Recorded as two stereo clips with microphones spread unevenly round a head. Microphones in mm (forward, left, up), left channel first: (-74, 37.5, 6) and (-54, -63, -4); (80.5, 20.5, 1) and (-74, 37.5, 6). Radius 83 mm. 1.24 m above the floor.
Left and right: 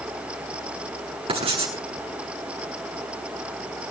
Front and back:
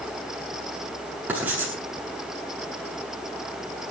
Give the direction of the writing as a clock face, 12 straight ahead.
4 o'clock.